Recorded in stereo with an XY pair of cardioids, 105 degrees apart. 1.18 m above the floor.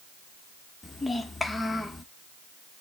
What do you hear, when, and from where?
0.8 s a child speaking: 20° left, 0.9 m